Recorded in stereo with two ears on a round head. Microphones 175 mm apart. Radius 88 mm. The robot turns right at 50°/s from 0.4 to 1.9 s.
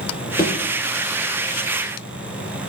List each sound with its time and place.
0.4 s a thud: 15° left (ahead or behind), 6 m; by 0.6 s 10° left (ahead or behind), 6 m